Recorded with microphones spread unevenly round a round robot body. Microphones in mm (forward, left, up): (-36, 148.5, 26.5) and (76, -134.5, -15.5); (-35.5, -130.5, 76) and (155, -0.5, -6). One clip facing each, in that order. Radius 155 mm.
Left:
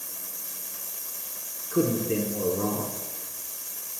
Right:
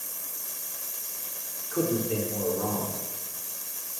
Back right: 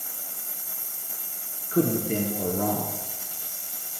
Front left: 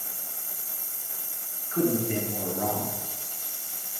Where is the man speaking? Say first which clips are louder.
Left 3 dB, back right 2 dB; 160° left, 1.3 m.